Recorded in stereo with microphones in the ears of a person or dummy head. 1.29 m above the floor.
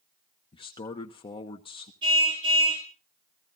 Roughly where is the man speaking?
Left.